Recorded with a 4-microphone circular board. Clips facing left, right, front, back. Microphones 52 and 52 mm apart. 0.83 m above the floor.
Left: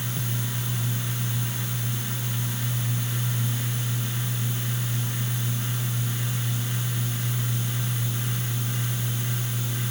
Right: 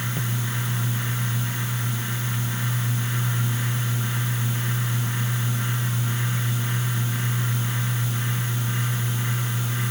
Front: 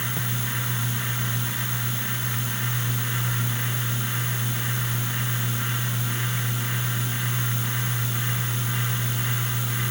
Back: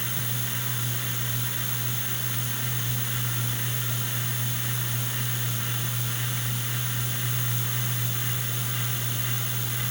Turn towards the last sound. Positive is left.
No sound to turn to.